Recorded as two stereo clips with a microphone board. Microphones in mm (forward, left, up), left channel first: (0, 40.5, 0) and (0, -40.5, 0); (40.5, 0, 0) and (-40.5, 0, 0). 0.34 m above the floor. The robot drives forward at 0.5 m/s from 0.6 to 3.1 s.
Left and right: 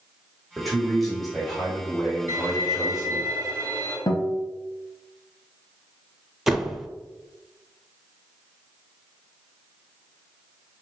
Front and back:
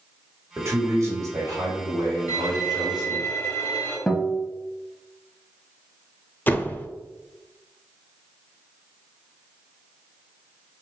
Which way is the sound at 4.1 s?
80° left.